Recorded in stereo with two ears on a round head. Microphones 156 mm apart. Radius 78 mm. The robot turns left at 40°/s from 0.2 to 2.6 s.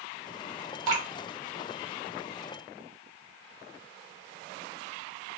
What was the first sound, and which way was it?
Dripping, 25° right (ahead or behind).